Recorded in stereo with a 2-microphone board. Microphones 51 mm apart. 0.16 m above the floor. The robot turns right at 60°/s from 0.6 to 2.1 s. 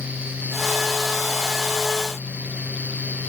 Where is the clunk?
I don't hear a clunk.